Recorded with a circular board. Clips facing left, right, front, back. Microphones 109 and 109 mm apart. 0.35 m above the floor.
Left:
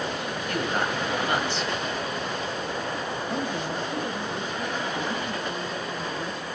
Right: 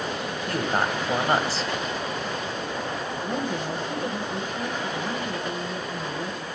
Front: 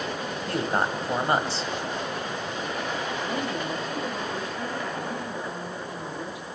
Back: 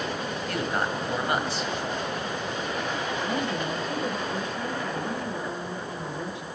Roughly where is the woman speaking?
Behind right.